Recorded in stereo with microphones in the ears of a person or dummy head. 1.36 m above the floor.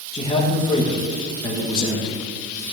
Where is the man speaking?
30° left (ahead or behind), 1.6 m.